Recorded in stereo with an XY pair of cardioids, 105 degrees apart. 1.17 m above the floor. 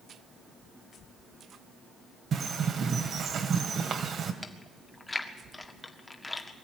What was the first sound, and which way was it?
A bird, 55° right.